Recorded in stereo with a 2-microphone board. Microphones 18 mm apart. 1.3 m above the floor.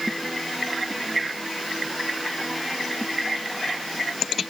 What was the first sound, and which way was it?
Only background noise.